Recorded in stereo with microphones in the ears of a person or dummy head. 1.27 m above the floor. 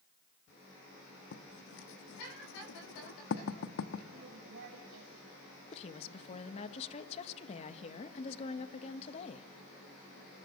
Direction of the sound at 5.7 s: 40° left (ahead or behind).